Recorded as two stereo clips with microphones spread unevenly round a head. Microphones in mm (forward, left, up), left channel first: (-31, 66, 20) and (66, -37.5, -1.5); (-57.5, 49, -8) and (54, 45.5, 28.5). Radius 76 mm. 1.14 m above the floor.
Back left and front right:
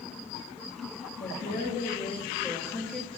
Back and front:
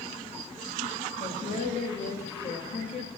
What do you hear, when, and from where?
1.2 s a woman speaking: 170° left, 1.8 m; by 3.1 s 135° right, 1.6 m